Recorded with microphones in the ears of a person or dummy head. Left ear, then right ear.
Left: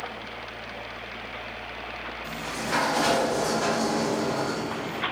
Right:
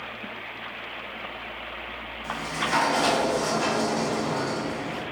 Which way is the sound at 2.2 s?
15° right (ahead or behind).